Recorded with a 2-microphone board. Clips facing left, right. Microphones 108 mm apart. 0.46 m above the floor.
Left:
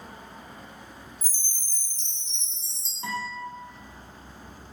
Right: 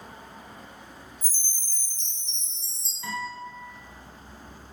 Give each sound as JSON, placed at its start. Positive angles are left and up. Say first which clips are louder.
{"t": 1.2, "sound": "a chime", "louder": "even", "side_deg": 25, "distance_m": 1.5}
{"t": 3.0, "sound": "a guitar", "louder": "left 1 dB", "side_deg": 40, "distance_m": 1.9}